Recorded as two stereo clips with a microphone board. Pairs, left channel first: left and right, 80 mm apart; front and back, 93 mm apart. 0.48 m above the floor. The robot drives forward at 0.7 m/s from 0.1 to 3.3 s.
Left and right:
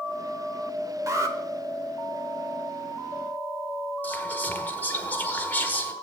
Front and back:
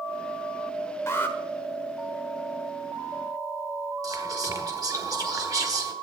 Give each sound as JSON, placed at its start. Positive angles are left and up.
{"t": 1.1, "sound": "an alarm", "azimuth_deg": -55, "distance_m": 1.2}
{"t": 4.0, "sound": "whispering", "azimuth_deg": 150, "distance_m": 1.3}